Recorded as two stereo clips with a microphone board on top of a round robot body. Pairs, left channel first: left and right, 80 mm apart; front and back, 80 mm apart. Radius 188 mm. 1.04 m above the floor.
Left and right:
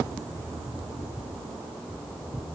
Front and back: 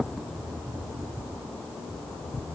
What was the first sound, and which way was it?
Only background noise.